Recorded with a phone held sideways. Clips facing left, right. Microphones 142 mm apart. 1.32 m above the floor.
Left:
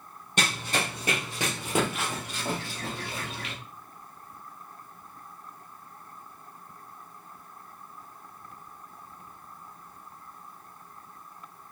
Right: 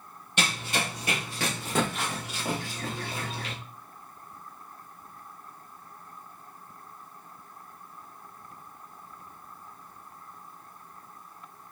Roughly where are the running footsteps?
Left.